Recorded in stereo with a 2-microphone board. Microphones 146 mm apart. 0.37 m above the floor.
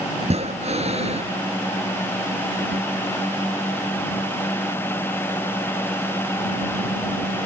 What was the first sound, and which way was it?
Breathing, 50° right (ahead or behind).